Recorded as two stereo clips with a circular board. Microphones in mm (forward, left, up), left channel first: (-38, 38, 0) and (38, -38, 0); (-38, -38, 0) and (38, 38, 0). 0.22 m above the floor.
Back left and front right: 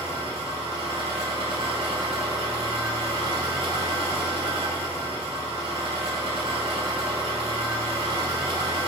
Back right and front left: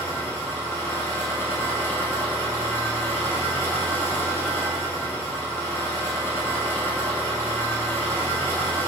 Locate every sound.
0.0 s an engine running: 70° right, 1.0 m